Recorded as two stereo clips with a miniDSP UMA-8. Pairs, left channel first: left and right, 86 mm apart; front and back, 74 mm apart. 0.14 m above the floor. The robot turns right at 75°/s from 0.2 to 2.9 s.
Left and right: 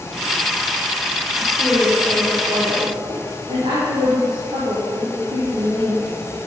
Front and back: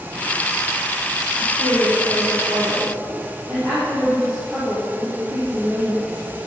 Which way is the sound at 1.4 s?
140° left.